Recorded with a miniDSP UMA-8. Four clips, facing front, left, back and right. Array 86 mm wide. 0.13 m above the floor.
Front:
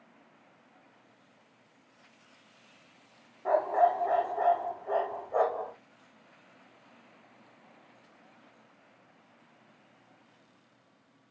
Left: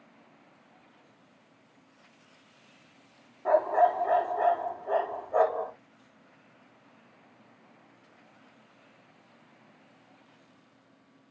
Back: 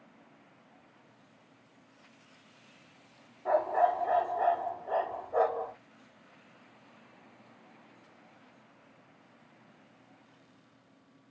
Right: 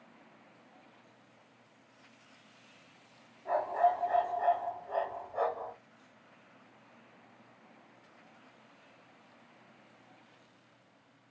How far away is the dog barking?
About 3.5 m.